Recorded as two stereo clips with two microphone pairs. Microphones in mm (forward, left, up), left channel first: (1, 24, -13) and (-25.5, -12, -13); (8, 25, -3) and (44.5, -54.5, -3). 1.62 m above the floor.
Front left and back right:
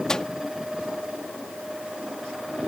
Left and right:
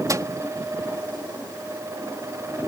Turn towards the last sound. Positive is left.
turn(degrees=-20)